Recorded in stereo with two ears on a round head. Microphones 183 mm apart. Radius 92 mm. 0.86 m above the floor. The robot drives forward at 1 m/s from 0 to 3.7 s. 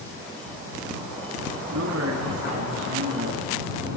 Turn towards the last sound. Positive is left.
turn(degrees=-85)